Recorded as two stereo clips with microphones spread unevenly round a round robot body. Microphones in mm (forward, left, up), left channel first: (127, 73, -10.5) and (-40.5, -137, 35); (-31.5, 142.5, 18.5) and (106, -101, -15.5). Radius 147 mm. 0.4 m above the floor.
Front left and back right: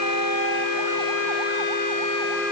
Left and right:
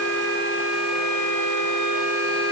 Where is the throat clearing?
I don't hear throat clearing.